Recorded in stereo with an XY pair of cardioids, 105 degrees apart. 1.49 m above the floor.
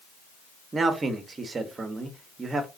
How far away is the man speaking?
About 1.1 m.